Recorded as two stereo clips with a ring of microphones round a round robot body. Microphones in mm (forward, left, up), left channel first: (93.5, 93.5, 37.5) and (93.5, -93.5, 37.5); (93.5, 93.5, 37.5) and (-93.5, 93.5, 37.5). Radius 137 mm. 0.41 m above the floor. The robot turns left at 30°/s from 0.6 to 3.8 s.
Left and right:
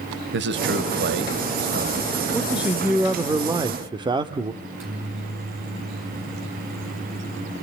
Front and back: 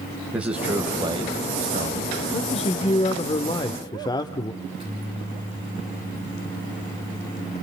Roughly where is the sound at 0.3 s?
Right.